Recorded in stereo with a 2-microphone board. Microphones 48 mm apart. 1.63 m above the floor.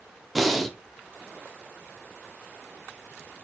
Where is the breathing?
Centre (ahead or behind), 0.6 m.